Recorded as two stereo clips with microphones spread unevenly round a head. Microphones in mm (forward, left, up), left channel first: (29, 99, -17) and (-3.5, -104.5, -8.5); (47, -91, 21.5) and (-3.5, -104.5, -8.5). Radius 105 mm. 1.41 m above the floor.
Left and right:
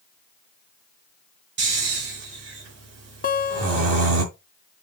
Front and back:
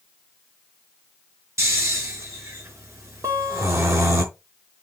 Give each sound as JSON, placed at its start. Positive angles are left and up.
{"t": 1.6, "sound": "snoring", "azimuth_deg": -135, "distance_m": 4.5}
{"t": 3.2, "sound": "a guitar", "azimuth_deg": 115, "distance_m": 1.2}